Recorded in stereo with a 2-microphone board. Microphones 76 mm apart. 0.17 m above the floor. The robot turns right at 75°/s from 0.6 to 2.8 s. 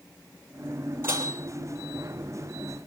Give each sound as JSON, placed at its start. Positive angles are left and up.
{"t": 1.0, "sound": "dishes clattering", "side_deg": -25, "distance_m": 3.0}